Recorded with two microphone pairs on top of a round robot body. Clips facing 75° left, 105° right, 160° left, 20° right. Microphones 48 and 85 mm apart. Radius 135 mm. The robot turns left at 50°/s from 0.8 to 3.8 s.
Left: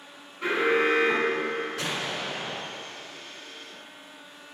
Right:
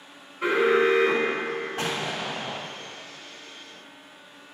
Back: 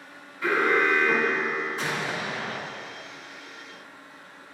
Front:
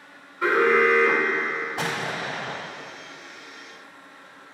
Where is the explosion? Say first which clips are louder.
Right 2 dB, front 1 dB; 45° right, 1.2 m; by 2.6 s 90° right, 1.2 m.